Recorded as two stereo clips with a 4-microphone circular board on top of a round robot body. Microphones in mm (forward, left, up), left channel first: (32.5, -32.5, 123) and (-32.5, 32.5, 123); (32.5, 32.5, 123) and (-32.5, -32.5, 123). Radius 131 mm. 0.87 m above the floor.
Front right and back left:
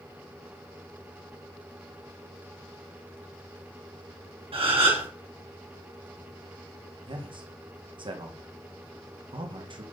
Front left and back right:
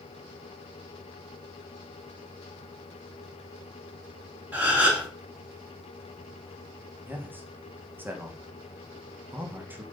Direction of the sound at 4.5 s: 150° left.